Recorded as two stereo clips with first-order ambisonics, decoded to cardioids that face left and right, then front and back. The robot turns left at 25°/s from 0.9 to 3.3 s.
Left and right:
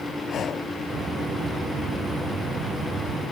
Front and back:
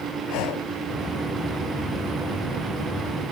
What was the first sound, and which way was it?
Breathing, 30° left.